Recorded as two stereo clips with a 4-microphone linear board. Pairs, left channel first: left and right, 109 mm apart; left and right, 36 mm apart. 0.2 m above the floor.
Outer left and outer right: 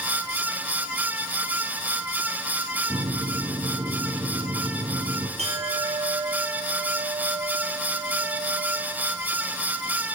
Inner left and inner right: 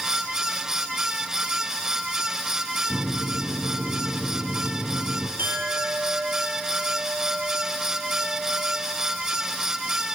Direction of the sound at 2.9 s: 50° right (ahead or behind).